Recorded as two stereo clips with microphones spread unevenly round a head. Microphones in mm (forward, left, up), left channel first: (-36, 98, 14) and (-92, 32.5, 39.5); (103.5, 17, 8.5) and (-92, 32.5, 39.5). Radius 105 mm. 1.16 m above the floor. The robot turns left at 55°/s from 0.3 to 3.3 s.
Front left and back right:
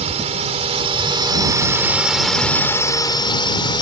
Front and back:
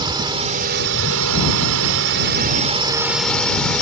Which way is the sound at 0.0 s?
115° right.